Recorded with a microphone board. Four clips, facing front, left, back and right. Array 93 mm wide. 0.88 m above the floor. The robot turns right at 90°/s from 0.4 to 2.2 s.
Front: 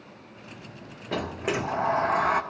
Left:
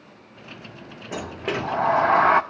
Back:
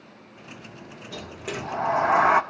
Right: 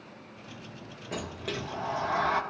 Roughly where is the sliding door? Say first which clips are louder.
Left 8 dB, front 6 dB; ahead.